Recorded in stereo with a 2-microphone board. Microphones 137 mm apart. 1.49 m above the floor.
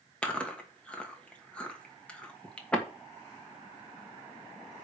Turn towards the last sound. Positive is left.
turn(degrees=10)  # may be behind; listen again after turning